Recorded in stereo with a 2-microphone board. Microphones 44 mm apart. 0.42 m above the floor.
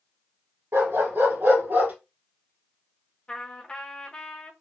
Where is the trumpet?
20° left (ahead or behind), 1.0 m.